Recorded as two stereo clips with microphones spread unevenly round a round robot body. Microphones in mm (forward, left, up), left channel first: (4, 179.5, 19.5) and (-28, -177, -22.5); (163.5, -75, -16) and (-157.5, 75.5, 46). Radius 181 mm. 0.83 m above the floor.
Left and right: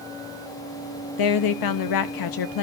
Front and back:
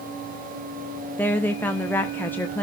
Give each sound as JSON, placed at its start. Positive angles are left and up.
{"t": 1.2, "sound": "a woman speaking", "azimuth_deg": 55, "distance_m": 0.6}